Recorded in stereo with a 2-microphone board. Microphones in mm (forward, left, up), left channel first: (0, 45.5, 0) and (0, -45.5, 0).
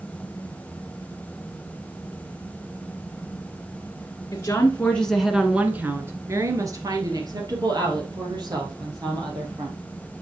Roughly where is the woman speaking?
Left.